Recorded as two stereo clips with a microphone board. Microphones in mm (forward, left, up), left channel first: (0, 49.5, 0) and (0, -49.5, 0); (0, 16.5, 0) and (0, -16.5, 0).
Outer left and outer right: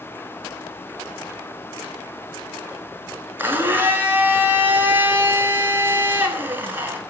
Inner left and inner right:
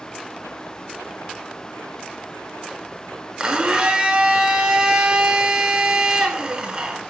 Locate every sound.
3.4 s a blender: 20° right (ahead or behind), 0.7 m